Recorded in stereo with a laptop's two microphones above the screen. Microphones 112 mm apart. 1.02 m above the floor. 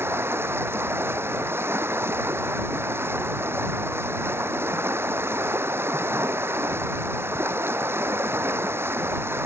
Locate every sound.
0.0 s running water: 20° right (ahead or behind)